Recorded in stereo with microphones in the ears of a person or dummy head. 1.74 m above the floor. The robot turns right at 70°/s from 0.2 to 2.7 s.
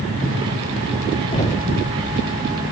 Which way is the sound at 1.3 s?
30° left (ahead or behind).